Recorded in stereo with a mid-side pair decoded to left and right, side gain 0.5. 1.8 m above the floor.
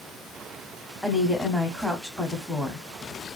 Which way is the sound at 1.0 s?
Straight ahead.